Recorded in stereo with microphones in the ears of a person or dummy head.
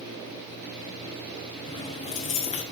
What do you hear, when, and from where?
1.7 s keys jangling: 30° left (ahead or behind), 1.2 m